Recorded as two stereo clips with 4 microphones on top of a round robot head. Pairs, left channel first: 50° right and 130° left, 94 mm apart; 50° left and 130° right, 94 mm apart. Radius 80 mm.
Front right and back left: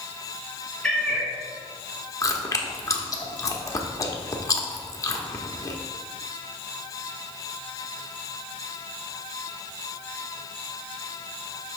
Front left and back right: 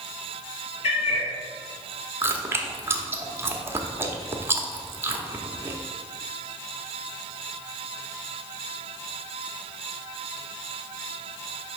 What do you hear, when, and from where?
0.8 s a cat meowing: 35° left, 1.1 m
2.2 s chewing: 80° right, 1.0 m